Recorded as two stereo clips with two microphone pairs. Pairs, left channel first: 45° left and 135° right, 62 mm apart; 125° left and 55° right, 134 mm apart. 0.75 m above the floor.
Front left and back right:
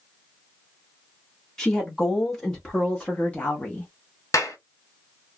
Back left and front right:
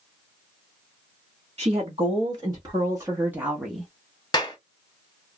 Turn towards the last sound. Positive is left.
turn(degrees=65)